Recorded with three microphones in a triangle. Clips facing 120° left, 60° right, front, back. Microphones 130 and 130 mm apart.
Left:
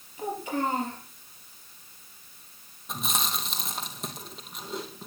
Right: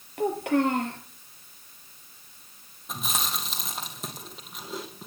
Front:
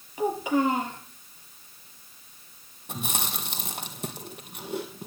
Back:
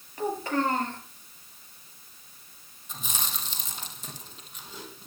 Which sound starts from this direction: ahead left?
Chewing, at 2.9 s.